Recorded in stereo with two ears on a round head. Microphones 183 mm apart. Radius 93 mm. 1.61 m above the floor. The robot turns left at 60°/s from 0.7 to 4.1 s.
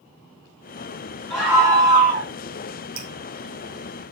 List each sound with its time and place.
1.3 s a scream: 15° left, 2 m; by 2.3 s 45° right, 2 m
3.0 s dripping: 45° right (ahead or behind), 1.9 m; by 3.1 s 50° right (ahead or behind), 1.9 m